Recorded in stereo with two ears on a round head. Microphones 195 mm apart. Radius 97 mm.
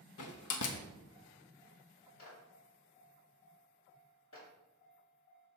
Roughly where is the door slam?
Left.